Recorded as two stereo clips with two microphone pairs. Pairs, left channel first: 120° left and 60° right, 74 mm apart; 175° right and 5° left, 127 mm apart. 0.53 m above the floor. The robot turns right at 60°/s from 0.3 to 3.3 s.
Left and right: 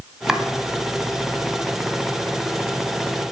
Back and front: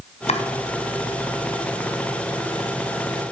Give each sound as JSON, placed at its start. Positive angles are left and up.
{"t": 0.3, "sound": "chopping", "azimuth_deg": -140, "distance_m": 1.6}